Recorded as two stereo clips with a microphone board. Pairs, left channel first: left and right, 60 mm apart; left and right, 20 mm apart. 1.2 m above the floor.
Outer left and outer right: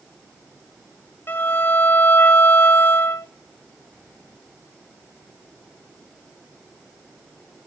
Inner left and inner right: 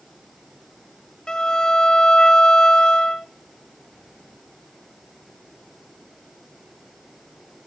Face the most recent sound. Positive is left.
turn(degrees=35)  # may be behind; listen again after turning